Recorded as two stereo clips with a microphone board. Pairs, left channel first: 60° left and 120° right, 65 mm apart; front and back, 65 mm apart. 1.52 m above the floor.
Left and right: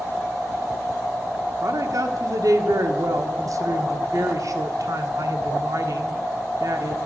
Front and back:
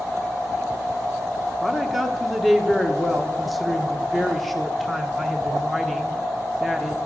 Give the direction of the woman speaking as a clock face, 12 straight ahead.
3 o'clock.